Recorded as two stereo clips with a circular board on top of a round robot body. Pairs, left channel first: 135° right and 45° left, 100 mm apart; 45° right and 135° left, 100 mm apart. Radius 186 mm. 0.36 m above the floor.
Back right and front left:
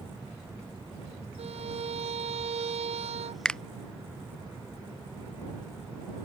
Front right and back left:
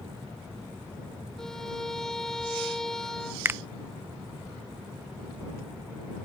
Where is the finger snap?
155° left.